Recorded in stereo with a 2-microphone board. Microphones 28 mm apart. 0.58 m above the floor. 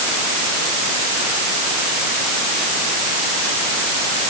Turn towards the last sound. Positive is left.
No sound to turn to.